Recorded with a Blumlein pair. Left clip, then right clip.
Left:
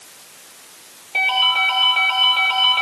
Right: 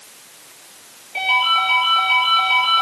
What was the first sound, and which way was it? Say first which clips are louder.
A ringtone: even; 65° left.